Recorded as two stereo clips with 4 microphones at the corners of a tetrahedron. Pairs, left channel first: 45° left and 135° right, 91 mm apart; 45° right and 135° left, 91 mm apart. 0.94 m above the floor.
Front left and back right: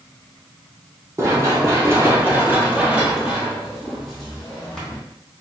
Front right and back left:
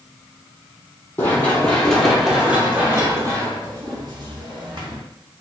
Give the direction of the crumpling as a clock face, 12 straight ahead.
I don't hear crumpling.